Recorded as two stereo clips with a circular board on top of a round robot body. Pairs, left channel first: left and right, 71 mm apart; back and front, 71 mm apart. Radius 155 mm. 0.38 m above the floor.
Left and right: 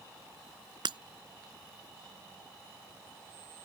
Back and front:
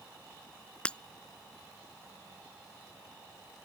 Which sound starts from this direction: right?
Breaking glass, at 0.8 s.